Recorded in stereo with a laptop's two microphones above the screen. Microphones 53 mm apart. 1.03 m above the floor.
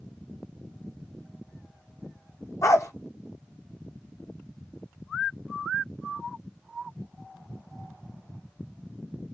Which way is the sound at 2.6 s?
60° left (ahead or behind).